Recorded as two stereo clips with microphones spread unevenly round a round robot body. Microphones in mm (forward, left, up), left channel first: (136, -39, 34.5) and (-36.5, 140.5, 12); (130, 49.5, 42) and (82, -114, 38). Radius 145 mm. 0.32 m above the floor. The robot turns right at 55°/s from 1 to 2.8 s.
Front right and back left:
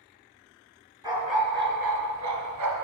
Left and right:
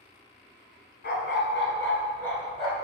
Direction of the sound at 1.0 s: 55° left.